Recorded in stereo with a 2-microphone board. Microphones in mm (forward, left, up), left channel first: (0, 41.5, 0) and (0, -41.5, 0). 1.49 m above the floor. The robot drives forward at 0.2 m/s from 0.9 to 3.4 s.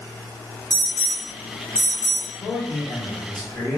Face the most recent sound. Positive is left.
turn(degrees=10)  # may be behind; listen again after turning